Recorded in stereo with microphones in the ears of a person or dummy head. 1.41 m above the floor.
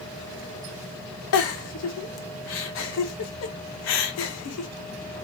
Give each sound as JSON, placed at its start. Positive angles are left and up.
{"t": 1.3, "sound": "a giggle", "side_deg": 75, "distance_m": 0.6}